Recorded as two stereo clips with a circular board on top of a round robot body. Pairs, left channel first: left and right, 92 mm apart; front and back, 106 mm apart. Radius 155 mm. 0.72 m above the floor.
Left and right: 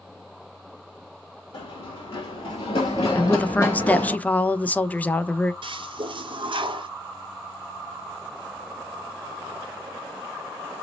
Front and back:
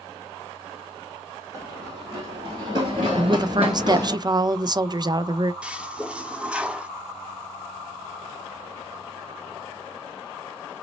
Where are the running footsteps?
125° left, 1.6 m; by 4.2 s 175° right, 0.7 m.